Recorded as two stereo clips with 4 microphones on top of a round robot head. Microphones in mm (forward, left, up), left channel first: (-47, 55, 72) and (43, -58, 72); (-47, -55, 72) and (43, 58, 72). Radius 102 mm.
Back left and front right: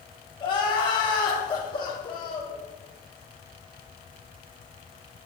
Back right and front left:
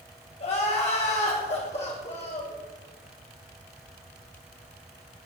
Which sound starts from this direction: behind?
Crying, at 0.4 s.